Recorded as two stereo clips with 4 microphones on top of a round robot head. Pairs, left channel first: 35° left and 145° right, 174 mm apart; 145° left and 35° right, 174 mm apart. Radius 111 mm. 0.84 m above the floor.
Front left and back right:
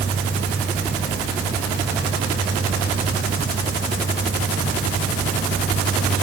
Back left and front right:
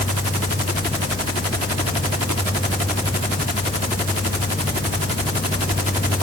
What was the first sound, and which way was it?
Only background noise.